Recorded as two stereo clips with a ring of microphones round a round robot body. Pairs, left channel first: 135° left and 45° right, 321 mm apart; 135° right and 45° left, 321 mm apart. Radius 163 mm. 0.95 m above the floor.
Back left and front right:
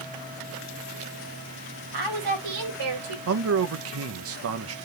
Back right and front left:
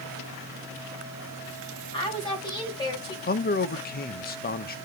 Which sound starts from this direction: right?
A man speaking, at 3.3 s.